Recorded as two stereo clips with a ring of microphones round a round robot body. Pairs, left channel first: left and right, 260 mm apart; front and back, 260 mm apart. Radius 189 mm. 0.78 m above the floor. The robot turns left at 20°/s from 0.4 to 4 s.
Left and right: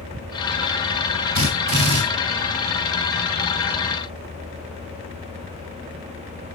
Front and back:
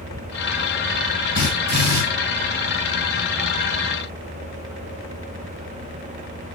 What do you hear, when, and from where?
1.4 s a drill: 115° right, 3.5 m; by 2.0 s 125° right, 3.5 m